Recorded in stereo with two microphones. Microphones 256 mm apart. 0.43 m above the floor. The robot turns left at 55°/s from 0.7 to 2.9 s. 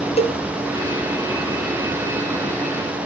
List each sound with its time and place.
0.2 s a cowbell: 25° left (ahead or behind), 1.0 m